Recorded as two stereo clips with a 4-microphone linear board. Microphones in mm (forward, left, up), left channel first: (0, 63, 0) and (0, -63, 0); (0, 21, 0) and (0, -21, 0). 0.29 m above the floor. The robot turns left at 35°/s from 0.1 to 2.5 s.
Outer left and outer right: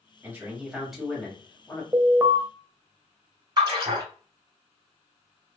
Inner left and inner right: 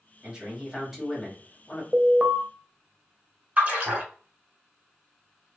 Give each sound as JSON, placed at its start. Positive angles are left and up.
{"t": 0.2, "sound": "a man speaking", "azimuth_deg": -155, "distance_m": 1.5}
{"t": 1.9, "sound": "an alarm", "side_deg": -25, "distance_m": 0.6}
{"t": 3.6, "sound": "a splash", "side_deg": -35, "distance_m": 2.0}